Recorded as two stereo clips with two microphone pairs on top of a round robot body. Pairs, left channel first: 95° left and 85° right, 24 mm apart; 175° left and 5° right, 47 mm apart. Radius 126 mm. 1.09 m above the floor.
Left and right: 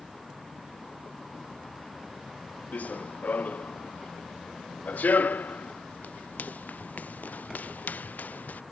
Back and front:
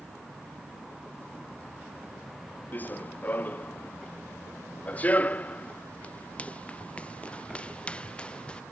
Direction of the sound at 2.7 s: 115° left.